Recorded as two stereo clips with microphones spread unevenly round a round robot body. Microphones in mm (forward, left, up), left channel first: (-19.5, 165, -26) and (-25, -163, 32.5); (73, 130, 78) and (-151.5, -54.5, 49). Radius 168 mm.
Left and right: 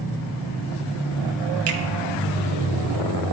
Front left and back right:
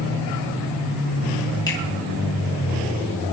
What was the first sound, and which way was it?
A finger snap, 40° right.